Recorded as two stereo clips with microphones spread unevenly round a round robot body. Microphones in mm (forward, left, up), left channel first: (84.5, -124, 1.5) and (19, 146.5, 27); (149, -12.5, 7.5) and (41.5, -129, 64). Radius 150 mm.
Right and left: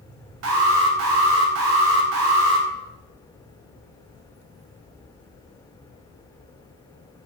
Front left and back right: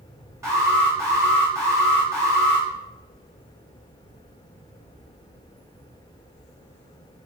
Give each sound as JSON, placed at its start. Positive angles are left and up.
{"t": 0.4, "sound": "an alarm", "azimuth_deg": 140, "distance_m": 0.6}